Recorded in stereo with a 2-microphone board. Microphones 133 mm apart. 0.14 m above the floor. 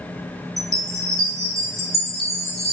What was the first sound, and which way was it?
A chime, centre (ahead or behind).